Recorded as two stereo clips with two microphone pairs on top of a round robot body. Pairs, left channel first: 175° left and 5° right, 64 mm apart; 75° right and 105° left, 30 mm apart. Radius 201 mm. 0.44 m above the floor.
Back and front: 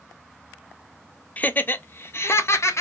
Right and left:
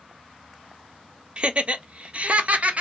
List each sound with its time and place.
1.4 s laughter: 125° left, 1.0 m; by 2.8 s 140° left, 1.5 m